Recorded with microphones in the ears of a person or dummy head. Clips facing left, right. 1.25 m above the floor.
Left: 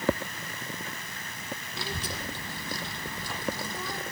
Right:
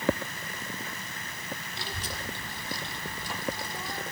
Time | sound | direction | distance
1.8 | a child speaking | 65° left (ahead or behind) | 0.8 m